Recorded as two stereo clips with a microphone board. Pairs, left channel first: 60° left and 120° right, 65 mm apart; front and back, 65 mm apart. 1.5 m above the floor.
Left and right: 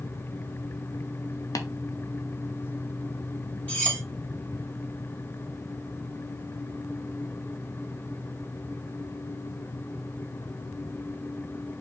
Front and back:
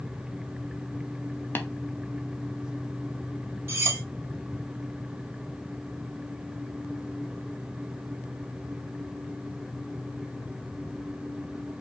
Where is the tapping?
55° left, 0.6 m.